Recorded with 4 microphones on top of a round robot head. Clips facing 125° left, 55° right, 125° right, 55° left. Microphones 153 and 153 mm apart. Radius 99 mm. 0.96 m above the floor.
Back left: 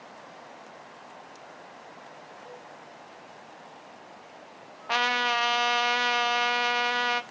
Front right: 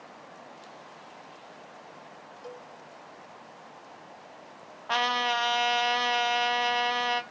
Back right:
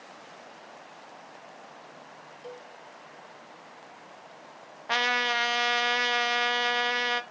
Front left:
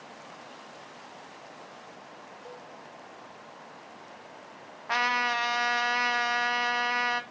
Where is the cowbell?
70° right, 0.9 m.